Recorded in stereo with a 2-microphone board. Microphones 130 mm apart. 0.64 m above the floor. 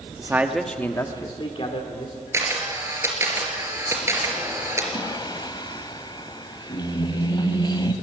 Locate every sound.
0.2 s a man speaking: 25° right (ahead or behind), 1.1 m; by 2.2 s 55° left (ahead or behind), 2.5 m
2.3 s a camera shutter: 20° right (ahead or behind), 3 m
4.9 s singing: 35° left (ahead or behind), 1.1 m